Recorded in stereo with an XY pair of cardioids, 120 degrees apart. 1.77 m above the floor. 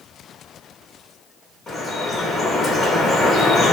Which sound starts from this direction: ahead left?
Dripping, at 1.7 s.